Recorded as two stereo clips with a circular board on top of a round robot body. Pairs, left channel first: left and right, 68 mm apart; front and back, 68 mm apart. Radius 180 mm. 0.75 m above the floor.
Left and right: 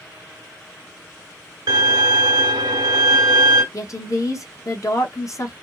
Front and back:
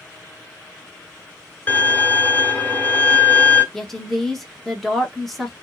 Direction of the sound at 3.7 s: 85° left.